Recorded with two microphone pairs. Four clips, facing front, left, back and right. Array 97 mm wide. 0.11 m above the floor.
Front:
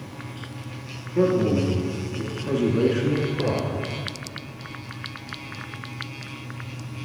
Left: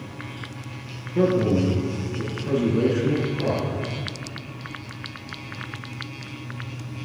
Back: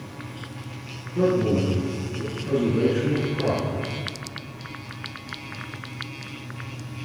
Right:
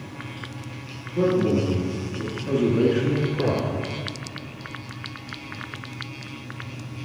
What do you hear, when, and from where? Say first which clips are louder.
1.1 s a man speaking: left 1 dB, front 1 dB; 55° left, 1.9 m; by 3.9 s 100° right, 1.5 m